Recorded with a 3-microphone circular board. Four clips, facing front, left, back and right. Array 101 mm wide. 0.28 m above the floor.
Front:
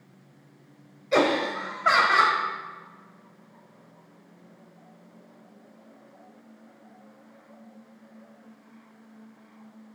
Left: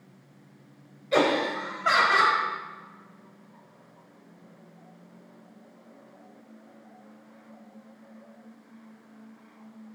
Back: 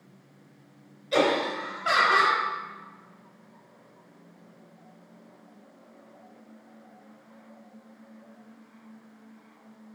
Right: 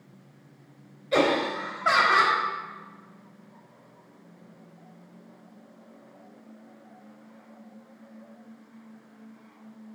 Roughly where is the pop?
No pop in this recording.